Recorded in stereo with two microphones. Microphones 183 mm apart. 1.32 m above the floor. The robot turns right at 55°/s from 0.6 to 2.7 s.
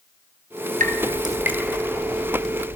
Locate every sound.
0.8 s dripping: 45° right (ahead or behind), 3.5 m; by 2.8 s 55° left (ahead or behind), 3.5 m